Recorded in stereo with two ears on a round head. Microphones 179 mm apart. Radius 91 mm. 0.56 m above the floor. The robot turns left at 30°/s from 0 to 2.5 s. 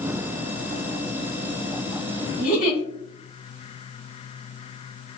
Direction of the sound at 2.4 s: 45° left (ahead or behind).